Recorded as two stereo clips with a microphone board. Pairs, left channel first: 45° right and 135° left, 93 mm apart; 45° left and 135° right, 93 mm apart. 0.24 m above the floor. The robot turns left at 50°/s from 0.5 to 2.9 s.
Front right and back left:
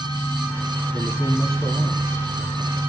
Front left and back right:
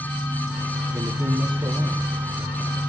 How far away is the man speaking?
About 1.8 m.